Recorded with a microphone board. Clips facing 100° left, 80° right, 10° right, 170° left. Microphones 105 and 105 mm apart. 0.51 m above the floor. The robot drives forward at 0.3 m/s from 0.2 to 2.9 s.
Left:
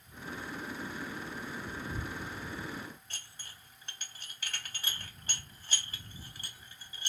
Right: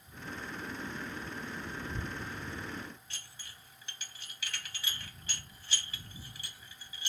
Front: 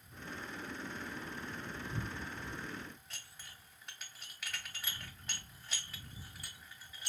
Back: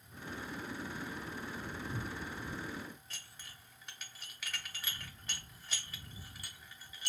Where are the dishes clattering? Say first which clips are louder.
Left 1 dB, even; 80° left, 0.7 m.